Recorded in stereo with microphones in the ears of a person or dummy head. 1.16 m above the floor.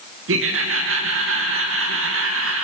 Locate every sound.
0.3 s laughter: 65° right (ahead or behind), 1.5 m